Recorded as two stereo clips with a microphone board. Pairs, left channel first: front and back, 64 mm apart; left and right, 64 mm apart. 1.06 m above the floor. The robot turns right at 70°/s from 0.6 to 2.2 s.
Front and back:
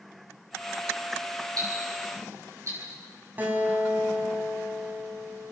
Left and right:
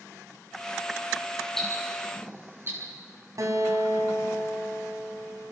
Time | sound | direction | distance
1.6 | ticking | 170° left | 8.5 m
3.4 | a guitar | 120° right | 3.5 m